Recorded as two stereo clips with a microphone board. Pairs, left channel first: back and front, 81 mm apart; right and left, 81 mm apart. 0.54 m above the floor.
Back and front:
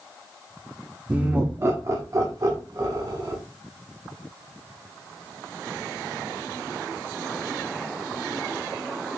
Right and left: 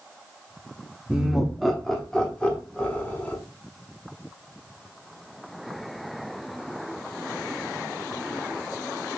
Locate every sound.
1.1 s laughter: 30° left, 0.8 m; by 3.4 s 20° right, 1.6 m